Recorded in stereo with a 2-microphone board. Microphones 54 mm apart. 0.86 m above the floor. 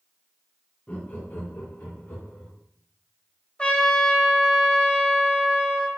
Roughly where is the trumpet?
Left.